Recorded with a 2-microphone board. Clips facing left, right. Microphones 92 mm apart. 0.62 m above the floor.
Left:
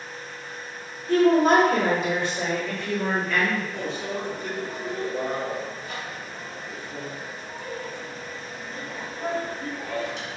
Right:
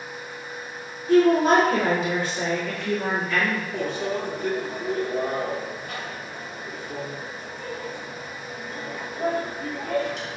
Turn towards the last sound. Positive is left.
turn(degrees=-50)  # may be behind; listen again after turning